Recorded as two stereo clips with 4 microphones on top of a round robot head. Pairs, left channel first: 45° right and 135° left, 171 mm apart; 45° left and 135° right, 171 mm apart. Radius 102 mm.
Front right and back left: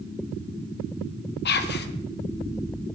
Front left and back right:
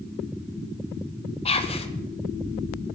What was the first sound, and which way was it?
Whispering, 15° right.